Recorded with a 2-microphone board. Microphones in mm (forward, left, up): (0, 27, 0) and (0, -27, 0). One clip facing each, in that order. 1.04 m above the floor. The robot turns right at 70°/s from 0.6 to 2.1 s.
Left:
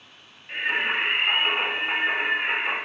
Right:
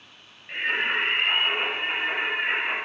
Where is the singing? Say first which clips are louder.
Even; 20° right, 1.2 m; by 2.8 s 85° left, 1.2 m.